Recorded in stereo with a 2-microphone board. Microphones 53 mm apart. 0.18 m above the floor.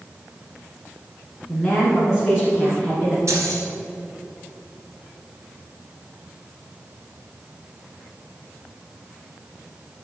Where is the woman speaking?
5° right (ahead or behind), 2 m; by 3.2 s 20° right (ahead or behind), 2.5 m.